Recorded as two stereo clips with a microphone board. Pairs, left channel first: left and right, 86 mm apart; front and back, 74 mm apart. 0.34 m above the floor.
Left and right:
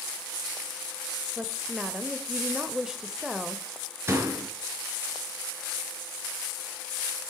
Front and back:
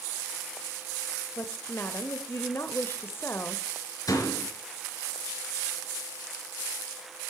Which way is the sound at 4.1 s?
30° right.